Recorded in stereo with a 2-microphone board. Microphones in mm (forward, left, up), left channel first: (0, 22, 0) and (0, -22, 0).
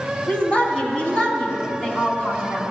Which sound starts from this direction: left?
A woman speaking, at 0.3 s.